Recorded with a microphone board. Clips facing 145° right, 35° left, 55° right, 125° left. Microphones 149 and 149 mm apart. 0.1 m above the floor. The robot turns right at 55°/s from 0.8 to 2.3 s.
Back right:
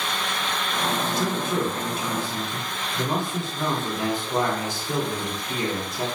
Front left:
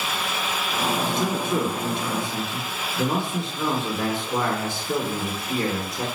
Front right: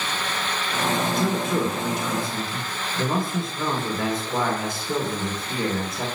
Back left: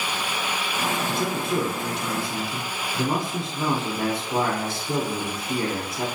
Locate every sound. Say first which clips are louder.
1.1 s a man speaking: front left 1 dB, front right 2 dB; 85° left, 1.9 m; by 6.0 s 155° left, 1.9 m